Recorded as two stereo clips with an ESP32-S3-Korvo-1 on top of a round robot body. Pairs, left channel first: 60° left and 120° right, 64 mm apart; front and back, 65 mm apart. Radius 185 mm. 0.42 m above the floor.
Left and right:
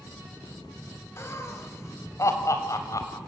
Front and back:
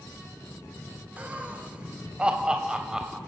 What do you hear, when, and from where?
1.2 s laughter: 110° left, 3.5 m; by 3.2 s 95° left, 3 m